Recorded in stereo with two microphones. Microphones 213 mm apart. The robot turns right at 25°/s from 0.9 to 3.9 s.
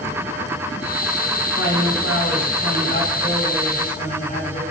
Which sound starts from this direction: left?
A man speaking, at 1.6 s.